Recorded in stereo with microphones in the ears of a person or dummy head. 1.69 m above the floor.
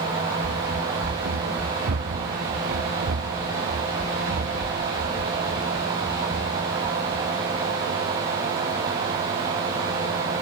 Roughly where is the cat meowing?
No cat meowing in this recording.